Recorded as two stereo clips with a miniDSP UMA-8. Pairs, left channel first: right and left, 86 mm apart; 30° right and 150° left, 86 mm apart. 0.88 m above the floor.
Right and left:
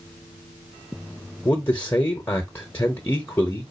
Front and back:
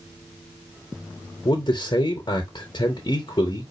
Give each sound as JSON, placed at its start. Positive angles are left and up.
{"t": 1.4, "sound": "a man speaking", "azimuth_deg": -30, "distance_m": 0.8}